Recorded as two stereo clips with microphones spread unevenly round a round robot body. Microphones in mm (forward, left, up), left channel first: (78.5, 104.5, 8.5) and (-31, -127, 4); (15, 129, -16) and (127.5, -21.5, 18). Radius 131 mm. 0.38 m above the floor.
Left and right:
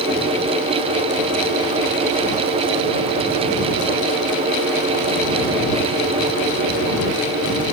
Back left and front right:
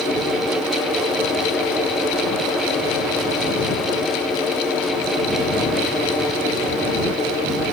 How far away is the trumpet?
I don't hear a trumpet.